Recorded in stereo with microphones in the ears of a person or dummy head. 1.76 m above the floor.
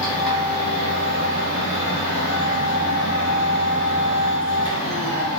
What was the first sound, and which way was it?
A machine running, 60° left (ahead or behind).